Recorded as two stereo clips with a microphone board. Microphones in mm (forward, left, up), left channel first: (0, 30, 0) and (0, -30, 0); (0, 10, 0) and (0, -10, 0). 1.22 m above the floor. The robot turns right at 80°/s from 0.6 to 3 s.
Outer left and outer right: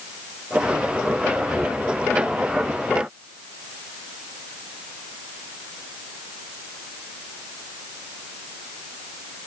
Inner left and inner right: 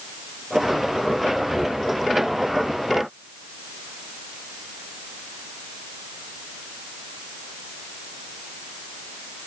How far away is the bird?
I don't hear a bird.